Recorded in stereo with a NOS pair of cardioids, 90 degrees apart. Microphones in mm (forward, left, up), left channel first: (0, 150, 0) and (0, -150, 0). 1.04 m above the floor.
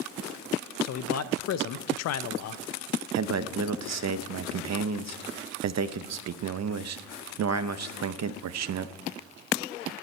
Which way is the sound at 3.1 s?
60° right.